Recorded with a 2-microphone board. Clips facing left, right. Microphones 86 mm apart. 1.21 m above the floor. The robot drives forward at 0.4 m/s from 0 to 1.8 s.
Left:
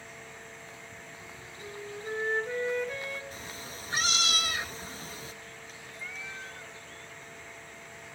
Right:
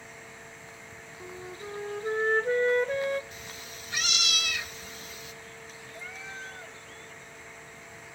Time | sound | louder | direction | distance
1.2 | a flute | right 9 dB | 40° right (ahead or behind) | 1.1 m
3.3 | a cat meowing | left 2 dB | 35° left (ahead or behind) | 0.8 m
5.9 | a cat meowing | right 1 dB | 25° right (ahead or behind) | 1.4 m